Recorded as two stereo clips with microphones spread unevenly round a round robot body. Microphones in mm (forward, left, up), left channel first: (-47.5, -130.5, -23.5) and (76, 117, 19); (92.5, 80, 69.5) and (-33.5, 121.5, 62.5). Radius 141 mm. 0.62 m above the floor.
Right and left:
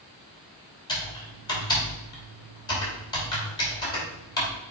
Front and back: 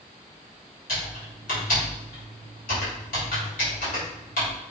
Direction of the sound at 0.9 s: 45° right.